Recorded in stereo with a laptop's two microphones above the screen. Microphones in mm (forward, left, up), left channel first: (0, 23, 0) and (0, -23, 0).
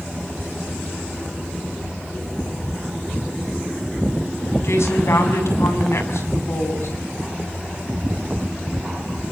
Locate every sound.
4.6 s a woman speaking: 70° left (ahead or behind), 6.5 m